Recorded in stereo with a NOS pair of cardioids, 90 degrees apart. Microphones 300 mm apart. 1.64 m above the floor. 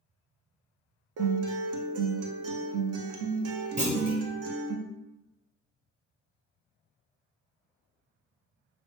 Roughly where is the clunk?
Ahead right.